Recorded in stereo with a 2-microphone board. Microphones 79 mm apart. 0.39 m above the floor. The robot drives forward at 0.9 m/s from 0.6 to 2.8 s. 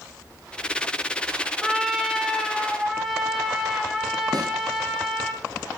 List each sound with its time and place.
1.6 s a trumpet: 5° right (ahead or behind), 0.8 m; by 5.3 s centre (ahead or behind), 1.8 m
4.3 s a snare drum: 55° right (ahead or behind), 2.5 m